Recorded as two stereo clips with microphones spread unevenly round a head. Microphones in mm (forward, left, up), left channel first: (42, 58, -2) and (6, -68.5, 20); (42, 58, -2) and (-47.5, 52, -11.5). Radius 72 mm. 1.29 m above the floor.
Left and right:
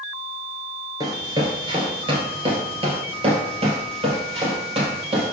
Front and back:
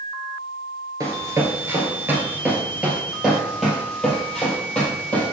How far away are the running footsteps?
About 1.6 m.